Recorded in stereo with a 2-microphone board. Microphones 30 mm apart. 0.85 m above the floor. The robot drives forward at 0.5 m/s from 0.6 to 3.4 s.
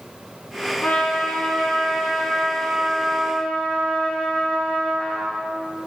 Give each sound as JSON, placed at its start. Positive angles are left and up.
{"t": 0.8, "sound": "a trumpet", "side_deg": 80, "distance_m": 1.4}